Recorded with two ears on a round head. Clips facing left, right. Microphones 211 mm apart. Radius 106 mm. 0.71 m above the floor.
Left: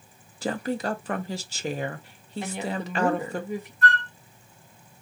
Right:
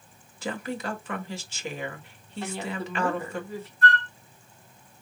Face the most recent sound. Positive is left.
turn(degrees=55)  # may be behind; listen again after turning